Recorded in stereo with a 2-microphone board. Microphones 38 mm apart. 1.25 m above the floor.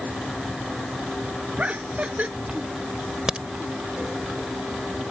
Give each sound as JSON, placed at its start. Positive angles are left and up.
{"t": 1.6, "sound": "laughter", "side_deg": -40}
{"t": 3.3, "sound": "a crack", "side_deg": -15}